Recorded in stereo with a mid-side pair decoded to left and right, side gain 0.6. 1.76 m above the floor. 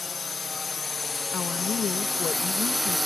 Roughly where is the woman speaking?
Ahead left.